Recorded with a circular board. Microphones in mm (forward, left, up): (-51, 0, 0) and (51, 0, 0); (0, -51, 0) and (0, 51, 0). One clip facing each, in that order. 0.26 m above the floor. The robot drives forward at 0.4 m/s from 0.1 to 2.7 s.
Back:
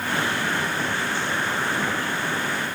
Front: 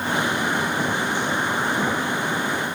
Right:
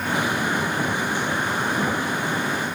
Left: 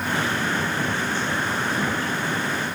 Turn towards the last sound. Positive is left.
No sound to turn to.